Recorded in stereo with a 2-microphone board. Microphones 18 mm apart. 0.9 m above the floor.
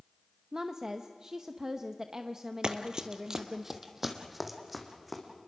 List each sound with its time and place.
0.5 s a woman speaking: 30° right (ahead or behind), 0.8 m
2.6 s running footsteps: 45° right (ahead or behind), 1.4 m; by 5.2 s centre (ahead or behind), 3.5 m